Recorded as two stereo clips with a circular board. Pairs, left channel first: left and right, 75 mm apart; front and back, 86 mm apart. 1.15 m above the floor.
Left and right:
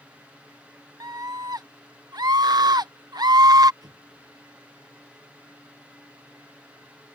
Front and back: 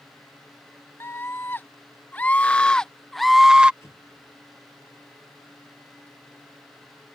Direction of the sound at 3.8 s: 60° right.